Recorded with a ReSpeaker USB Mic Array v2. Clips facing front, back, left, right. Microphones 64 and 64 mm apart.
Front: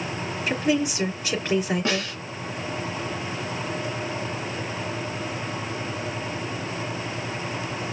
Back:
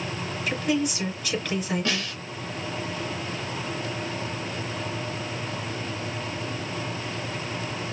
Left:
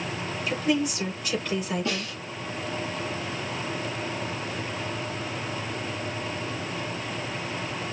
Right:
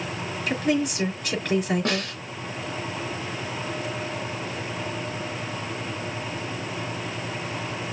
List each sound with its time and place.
0.5 s a woman speaking: 60° right, 4 m
1.9 s a snare drum: 65° right, 2.0 m